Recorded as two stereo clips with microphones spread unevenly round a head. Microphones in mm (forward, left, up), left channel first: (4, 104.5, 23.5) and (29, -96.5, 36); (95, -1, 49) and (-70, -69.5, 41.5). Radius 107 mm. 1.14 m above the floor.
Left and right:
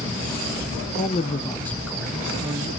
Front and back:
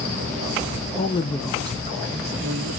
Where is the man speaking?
55° left, 0.8 m; by 2.8 s 160° right, 1.5 m.